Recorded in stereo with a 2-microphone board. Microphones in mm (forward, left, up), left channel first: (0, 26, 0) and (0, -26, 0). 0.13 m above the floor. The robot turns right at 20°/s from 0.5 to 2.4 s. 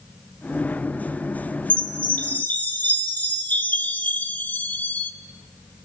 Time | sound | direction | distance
1.7 | a chime | 30° left (ahead or behind) | 1.1 m